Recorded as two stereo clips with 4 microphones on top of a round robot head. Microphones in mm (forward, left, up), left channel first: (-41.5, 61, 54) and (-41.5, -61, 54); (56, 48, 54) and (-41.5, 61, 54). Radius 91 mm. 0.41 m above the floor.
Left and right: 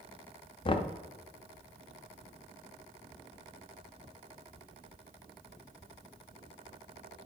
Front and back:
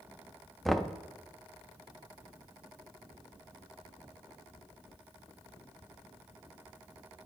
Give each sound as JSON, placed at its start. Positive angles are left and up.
{"t": 0.7, "sound": "knocking", "azimuth_deg": 80, "distance_m": 0.6}